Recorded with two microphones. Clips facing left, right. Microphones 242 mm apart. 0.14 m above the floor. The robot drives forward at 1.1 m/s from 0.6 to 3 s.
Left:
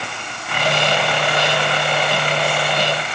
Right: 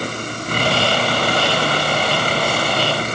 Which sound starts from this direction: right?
A vehicle, at 0.0 s.